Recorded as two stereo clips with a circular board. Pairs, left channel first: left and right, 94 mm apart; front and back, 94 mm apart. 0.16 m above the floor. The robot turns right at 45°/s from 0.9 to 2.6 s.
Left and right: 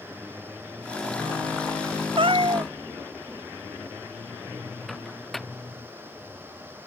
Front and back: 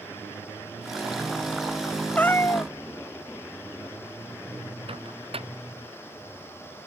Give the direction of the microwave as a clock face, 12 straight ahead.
6 o'clock.